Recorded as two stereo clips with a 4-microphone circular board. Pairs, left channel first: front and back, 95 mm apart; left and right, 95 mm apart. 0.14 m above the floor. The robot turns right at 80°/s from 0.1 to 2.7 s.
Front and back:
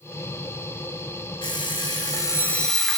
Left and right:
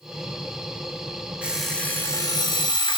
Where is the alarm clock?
20° right, 1.2 m; by 3.0 s 85° left, 1.2 m.